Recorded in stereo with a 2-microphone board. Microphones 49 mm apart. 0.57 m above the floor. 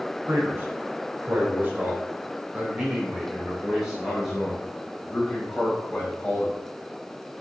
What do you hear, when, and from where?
0.3 s a man speaking: 55° right (ahead or behind), 2.5 m; by 6.5 s 15° left (ahead or behind), 3 m